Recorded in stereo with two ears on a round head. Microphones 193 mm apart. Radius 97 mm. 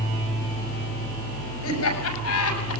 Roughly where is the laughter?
Left.